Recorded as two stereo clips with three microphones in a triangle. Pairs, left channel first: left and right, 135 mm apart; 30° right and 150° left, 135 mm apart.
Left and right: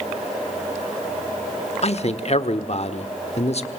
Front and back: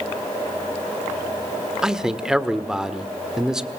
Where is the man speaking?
65° left, 1.2 m.